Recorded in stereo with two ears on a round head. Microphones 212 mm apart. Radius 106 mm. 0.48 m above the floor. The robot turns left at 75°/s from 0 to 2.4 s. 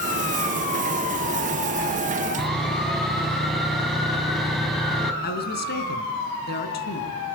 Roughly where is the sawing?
Centre.